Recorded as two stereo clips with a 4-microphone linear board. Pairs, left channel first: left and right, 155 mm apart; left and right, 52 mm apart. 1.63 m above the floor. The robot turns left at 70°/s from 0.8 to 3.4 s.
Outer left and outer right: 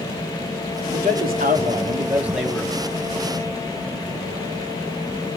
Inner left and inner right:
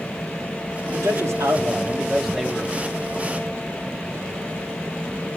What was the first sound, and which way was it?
A man speaking, 75° right.